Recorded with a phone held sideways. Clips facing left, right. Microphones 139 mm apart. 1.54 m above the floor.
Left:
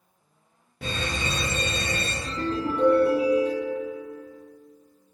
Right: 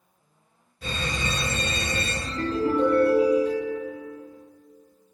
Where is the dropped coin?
I don't hear a dropped coin.